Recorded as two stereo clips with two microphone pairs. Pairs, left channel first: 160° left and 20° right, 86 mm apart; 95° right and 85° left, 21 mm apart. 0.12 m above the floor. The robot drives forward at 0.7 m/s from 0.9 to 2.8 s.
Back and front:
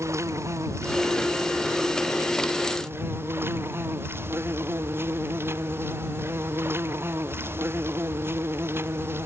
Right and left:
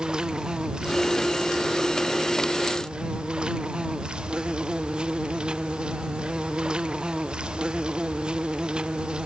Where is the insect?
40° left; by 9.3 s 45° left.